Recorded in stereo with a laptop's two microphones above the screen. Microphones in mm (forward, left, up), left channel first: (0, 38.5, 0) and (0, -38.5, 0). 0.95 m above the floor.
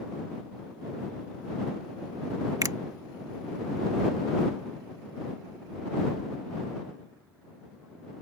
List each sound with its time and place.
2.6 s a finger snap: 50° right (ahead or behind)